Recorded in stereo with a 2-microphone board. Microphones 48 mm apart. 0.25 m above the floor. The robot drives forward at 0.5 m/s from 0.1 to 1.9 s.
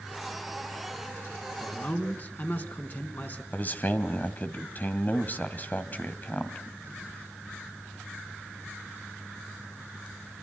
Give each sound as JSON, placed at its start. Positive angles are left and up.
{"t": 1.6, "sound": "a man speaking", "side_deg": 40, "distance_m": 3.0}
{"t": 3.5, "sound": "a man speaking", "side_deg": 40, "distance_m": 1.9}